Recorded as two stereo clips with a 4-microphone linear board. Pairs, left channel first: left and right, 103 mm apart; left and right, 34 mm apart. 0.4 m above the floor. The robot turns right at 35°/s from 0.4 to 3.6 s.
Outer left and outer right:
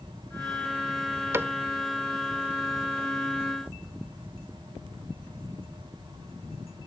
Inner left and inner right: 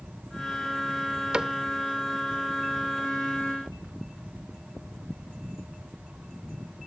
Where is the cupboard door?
25° right (ahead or behind); by 1.6 s 20° right (ahead or behind).